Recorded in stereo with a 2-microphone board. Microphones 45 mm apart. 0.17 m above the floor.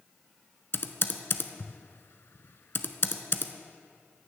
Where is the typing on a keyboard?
60° left (ahead or behind), 0.6 m.